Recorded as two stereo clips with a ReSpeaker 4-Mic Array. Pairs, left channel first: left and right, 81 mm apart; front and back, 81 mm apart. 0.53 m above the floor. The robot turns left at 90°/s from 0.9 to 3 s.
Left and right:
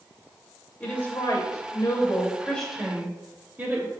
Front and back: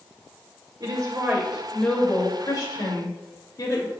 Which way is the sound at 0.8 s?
160° left.